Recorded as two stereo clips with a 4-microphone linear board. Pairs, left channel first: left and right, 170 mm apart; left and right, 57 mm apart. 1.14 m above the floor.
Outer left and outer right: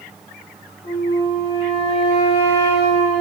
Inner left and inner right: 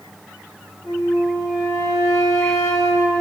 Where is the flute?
75° left (ahead or behind), 1.4 m.